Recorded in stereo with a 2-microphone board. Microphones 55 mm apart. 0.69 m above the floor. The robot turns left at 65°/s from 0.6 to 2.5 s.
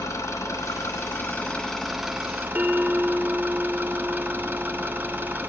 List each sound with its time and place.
0.0 s an engine running: 85° left, 1.7 m; by 5.5 s 40° right, 1.7 m
2.5 s a bell: 55° right (ahead or behind), 2 m